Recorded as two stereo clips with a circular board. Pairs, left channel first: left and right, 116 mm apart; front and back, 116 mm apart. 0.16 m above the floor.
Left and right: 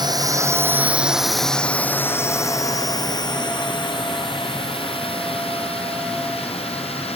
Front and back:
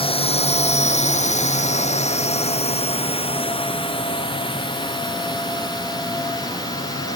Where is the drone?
35° right; by 7.2 s 60° left.